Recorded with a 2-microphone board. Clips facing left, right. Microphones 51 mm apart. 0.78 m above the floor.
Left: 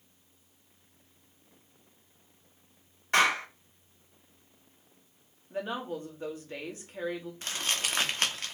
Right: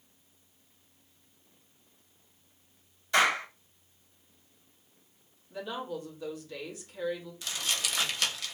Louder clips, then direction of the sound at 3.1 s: Even; 50° left (ahead or behind).